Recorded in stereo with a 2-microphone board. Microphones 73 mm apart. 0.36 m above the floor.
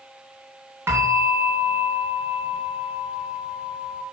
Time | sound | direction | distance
0.9 | a bell | 35° right (ahead or behind) | 3.5 m